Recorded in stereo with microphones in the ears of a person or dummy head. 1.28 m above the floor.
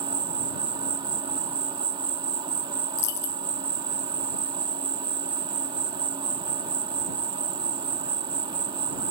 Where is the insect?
30° right (ahead or behind).